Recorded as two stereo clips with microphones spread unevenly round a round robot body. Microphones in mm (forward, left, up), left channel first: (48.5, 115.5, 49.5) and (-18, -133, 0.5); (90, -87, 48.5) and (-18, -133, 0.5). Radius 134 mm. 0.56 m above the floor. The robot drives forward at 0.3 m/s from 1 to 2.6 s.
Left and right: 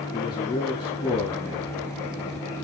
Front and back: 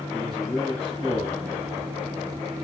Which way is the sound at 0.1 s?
150° left.